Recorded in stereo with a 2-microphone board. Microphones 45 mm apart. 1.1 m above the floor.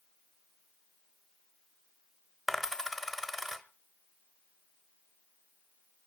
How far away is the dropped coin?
About 1.0 m.